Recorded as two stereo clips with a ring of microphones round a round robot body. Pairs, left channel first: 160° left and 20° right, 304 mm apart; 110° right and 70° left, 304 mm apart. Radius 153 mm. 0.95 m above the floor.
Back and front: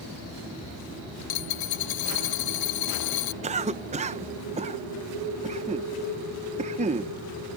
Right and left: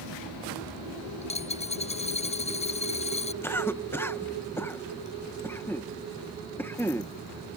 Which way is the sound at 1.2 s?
175° left.